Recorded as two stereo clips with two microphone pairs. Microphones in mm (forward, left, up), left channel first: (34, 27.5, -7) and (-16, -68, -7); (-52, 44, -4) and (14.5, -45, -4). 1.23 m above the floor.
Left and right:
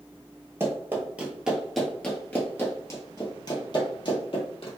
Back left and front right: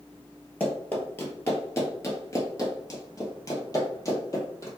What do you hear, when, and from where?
0.6 s running footsteps: 165° right, 1.5 m; by 4.7 s 75° left, 2.0 m